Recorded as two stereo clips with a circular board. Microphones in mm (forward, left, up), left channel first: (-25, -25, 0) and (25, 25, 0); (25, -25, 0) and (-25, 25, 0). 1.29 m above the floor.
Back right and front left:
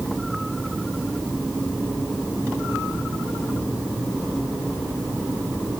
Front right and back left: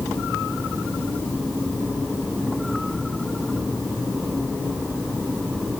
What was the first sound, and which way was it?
Only background noise.